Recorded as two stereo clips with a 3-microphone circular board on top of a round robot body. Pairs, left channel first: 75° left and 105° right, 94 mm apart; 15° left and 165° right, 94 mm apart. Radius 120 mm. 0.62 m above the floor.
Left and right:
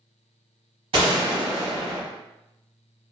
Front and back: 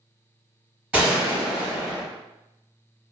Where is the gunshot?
90° right, 1.7 m.